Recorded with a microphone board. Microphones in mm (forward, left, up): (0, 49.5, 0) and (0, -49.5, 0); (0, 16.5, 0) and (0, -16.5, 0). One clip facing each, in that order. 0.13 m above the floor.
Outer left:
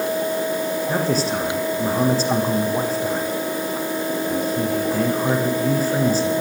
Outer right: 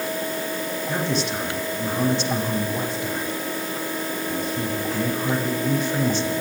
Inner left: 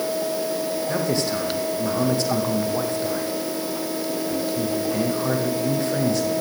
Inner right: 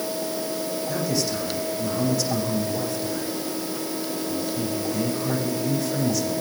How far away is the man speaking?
About 8.5 m.